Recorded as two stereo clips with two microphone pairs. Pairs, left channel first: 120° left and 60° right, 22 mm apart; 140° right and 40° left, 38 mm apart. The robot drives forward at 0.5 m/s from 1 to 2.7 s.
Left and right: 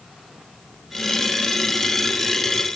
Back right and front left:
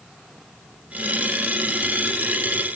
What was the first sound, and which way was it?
Only background noise.